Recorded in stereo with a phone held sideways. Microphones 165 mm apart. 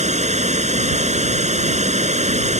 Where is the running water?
45° right (ahead or behind).